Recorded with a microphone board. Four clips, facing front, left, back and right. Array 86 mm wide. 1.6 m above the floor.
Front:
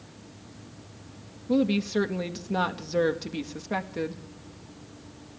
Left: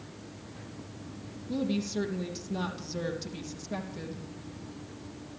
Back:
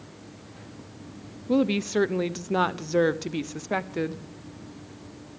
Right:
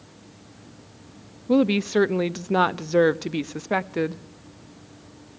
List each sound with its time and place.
1.5 s a woman speaking: 100° right, 0.6 m